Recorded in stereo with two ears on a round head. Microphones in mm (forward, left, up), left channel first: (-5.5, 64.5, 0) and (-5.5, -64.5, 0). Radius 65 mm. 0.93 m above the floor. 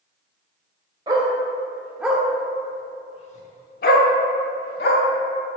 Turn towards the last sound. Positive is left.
turn(degrees=80)